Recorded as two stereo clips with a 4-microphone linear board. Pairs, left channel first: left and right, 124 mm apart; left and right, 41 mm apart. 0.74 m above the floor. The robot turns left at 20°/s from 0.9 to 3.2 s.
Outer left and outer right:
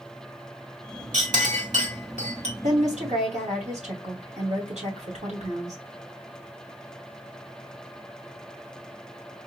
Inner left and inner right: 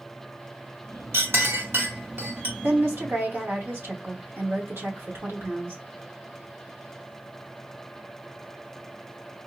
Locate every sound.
1.1 s a clink: 85° right, 1.3 m; by 2.5 s 55° right (ahead or behind), 1.3 m
2.6 s a woman speaking: 65° right (ahead or behind), 2.5 m